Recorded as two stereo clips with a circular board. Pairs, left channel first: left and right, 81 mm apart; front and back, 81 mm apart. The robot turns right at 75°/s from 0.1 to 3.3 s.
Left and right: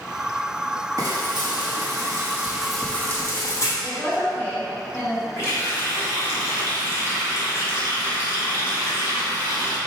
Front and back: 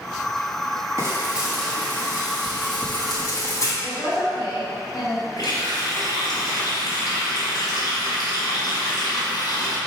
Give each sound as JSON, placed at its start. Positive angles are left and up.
{"t": 1.0, "sound": "frying", "azimuth_deg": -130, "distance_m": 1.3}
{"t": 3.8, "sound": "a woman speaking", "azimuth_deg": 25, "distance_m": 1.8}
{"t": 5.4, "sound": "a running tap", "azimuth_deg": 35, "distance_m": 2.5}